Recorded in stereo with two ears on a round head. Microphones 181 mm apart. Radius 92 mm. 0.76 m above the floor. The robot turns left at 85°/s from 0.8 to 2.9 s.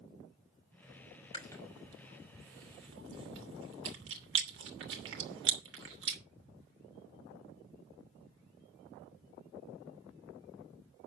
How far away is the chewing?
About 2.5 m.